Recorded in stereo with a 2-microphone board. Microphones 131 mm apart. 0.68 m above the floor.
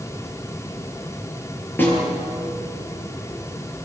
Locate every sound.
1.8 s a snare drum: 15° left (ahead or behind), 7.5 m